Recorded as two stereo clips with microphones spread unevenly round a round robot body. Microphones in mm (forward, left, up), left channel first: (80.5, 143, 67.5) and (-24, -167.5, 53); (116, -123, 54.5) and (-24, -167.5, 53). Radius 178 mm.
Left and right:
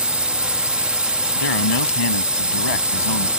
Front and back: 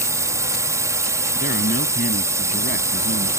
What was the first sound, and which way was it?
A drone, 175° left.